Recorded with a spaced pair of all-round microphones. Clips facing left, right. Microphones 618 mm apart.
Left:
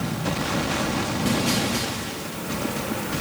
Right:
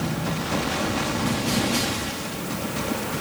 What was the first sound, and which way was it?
Only background noise.